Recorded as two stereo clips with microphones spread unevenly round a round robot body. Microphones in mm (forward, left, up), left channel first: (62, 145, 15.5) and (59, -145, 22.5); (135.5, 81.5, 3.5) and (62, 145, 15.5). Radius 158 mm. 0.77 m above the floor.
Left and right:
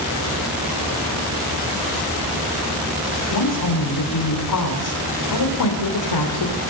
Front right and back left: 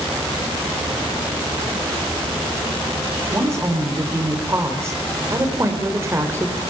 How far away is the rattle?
I don't hear a rattle.